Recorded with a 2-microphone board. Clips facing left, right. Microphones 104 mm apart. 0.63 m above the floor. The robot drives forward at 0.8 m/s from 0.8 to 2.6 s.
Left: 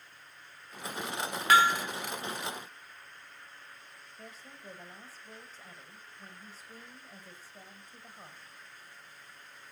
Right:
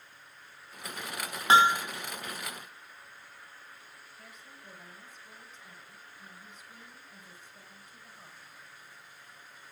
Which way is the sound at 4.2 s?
35° left (ahead or behind).